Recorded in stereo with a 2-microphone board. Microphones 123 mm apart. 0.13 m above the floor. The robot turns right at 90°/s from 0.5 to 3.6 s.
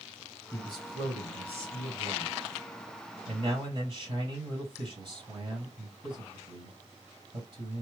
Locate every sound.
0.5 s a man speaking: 25° left, 3 m; by 7.8 s 60° right, 3 m